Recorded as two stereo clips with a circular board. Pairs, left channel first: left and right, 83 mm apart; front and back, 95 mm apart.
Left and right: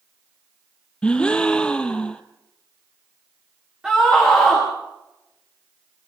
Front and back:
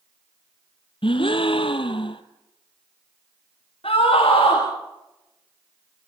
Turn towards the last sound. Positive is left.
turn(degrees=-10)